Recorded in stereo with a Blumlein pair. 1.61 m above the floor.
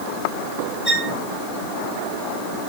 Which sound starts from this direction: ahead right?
A violin, at 0.8 s.